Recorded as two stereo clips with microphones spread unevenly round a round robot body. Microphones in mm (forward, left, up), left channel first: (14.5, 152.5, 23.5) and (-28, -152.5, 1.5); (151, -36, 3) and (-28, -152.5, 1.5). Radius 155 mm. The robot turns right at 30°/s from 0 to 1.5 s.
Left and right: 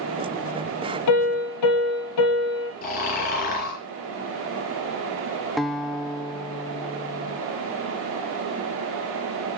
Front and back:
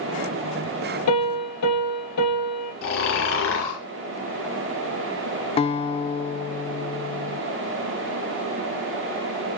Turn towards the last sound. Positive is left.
turn(degrees=-15)